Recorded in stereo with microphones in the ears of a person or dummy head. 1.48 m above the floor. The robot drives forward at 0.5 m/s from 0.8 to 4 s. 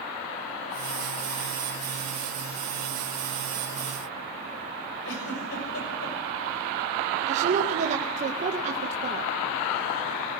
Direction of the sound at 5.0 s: 85° left.